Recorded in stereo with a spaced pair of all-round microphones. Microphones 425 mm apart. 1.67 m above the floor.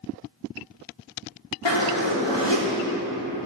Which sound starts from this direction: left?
A zipper, at 1.6 s.